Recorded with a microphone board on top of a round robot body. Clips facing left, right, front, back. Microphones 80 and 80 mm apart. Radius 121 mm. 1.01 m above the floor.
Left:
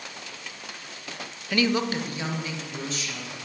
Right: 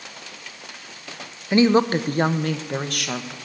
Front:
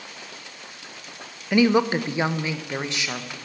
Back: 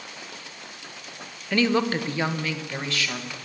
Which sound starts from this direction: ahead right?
A woman speaking, at 1.5 s.